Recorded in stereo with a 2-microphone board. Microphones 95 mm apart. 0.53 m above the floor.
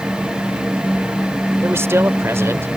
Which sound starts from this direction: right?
A man speaking, at 1.6 s.